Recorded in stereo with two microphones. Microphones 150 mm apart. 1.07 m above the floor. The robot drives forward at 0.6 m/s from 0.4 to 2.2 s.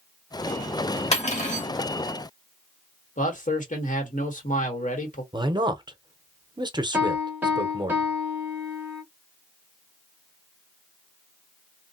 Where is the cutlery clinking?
45° left (ahead or behind), 1.2 m; by 1.7 s 55° left (ahead or behind), 1.0 m.